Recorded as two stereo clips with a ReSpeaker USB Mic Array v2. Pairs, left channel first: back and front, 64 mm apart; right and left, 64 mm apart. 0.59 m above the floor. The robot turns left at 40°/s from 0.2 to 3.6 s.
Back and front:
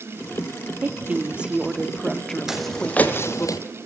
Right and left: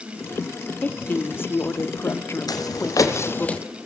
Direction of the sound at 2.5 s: 85° right.